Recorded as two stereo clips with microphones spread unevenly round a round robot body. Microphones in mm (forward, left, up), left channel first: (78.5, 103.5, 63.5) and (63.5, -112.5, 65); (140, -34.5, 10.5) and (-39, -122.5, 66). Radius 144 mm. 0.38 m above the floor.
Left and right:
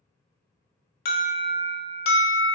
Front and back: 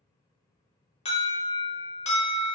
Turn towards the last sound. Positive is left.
turn(degrees=60)